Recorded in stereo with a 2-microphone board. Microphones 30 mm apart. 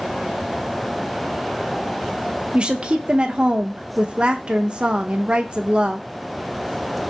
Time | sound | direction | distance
2.5 | a woman speaking | 35° right (ahead or behind) | 0.7 m